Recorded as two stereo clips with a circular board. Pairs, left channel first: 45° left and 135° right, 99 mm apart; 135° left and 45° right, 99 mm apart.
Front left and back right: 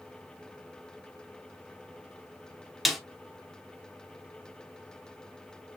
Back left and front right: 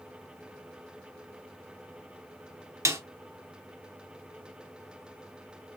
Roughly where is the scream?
I don't hear a scream.